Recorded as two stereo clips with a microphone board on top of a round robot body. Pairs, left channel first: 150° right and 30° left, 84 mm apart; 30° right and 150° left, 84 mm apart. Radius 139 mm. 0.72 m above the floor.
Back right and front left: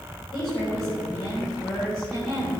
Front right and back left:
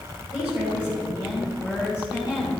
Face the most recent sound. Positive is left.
turn(degrees=-140)